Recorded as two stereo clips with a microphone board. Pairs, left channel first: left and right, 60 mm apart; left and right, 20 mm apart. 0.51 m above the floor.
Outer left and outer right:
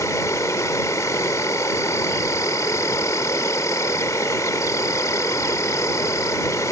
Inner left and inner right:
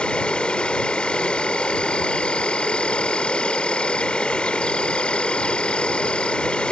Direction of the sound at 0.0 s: 60° left (ahead or behind).